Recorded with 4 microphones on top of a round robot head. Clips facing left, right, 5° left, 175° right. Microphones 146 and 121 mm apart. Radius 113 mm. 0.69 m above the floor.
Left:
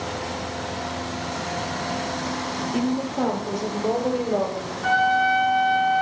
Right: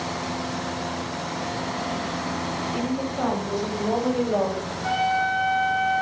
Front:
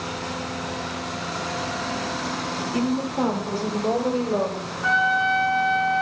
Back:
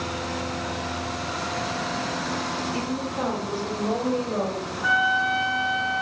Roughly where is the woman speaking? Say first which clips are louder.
Left 4 dB, front 5 dB; ahead left.